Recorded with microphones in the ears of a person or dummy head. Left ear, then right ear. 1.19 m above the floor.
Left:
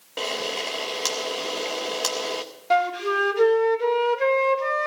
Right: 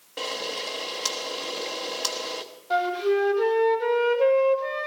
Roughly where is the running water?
I don't hear running water.